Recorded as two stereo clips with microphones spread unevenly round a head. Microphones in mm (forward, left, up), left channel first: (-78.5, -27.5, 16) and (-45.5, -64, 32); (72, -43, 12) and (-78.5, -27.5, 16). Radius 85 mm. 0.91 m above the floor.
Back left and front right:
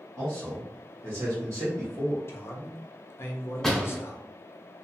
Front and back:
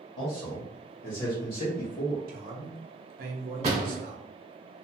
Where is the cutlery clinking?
No cutlery clinking in this recording.